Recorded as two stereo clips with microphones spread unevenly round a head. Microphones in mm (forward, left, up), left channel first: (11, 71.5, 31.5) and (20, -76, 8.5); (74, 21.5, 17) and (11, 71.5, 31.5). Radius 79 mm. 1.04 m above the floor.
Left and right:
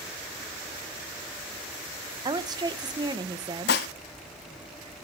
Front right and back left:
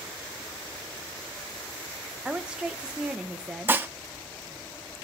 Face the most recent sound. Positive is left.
turn(degrees=80)